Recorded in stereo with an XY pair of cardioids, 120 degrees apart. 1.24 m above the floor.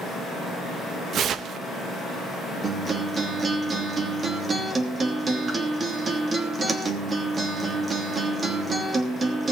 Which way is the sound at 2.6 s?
30° right.